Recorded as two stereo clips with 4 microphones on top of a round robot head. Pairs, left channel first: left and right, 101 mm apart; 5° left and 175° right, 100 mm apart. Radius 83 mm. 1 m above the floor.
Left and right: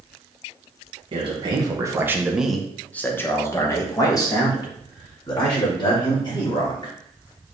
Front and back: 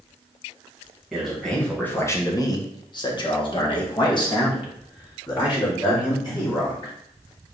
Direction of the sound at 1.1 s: 85° right.